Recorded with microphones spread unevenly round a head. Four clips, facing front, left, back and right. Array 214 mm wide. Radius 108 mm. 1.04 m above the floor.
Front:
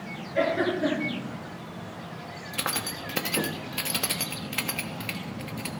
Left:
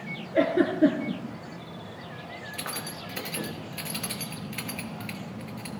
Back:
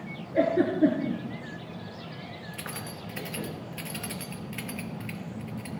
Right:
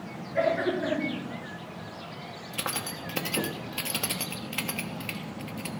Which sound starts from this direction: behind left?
A giggle, at 0.3 s.